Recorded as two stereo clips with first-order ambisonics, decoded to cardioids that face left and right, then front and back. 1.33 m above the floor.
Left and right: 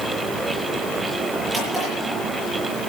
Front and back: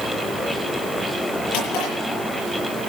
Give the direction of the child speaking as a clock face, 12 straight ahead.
No child speaking in this recording.